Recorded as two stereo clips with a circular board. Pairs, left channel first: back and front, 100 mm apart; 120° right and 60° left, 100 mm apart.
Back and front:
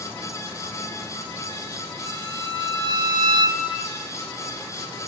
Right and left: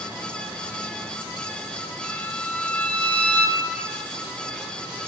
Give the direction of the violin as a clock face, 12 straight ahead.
1 o'clock.